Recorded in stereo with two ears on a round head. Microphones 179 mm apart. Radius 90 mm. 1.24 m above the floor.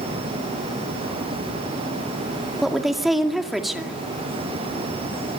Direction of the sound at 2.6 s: Centre (ahead or behind).